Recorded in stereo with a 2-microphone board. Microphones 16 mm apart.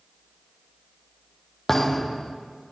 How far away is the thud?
About 1.7 m.